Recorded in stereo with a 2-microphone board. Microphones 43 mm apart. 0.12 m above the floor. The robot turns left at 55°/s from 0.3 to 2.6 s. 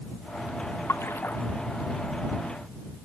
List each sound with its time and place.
0.9 s a splash: 85° left; by 1.4 s 60° left (ahead or behind)